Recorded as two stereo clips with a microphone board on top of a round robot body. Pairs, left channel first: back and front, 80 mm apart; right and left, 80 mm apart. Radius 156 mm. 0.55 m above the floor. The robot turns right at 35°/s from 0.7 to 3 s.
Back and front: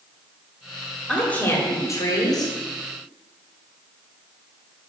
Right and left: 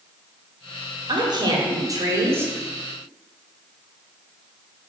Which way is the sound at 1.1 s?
100° left.